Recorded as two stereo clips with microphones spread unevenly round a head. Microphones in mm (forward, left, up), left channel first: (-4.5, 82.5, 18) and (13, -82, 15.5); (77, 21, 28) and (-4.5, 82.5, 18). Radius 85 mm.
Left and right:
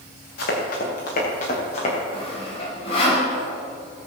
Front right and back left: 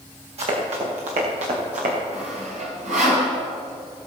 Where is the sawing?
155° left, 4.5 m.